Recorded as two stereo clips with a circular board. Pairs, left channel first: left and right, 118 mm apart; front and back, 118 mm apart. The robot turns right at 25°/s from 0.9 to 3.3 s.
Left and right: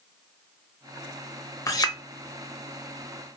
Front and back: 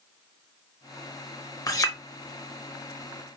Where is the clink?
45° left, 0.5 m; by 2.0 s 50° left, 0.5 m.